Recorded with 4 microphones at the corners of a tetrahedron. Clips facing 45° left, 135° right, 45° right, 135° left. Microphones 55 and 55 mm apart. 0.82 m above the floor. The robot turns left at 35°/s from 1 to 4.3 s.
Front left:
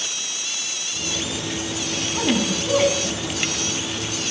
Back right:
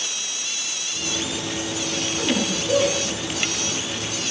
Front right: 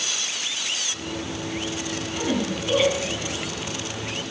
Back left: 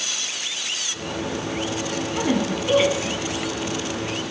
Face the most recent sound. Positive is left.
turn(degrees=0)